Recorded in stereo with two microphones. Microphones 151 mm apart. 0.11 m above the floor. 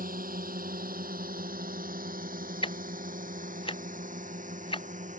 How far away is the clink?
No clink in this recording.